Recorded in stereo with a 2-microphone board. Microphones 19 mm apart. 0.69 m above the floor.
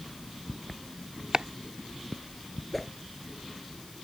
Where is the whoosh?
Centre (ahead or behind).